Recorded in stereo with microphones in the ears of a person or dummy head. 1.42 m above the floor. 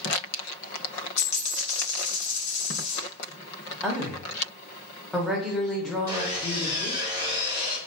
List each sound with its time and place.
1.2 s a dropped coin: 40° left (ahead or behind), 1.3 m
3.8 s a woman speaking: 5° left (ahead or behind), 0.6 m
6.1 s sawing: 20° right (ahead or behind), 0.8 m